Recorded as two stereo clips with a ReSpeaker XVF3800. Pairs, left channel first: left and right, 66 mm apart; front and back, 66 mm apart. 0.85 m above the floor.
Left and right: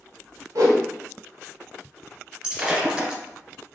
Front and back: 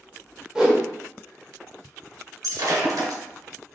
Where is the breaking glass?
160° right, 1.8 m.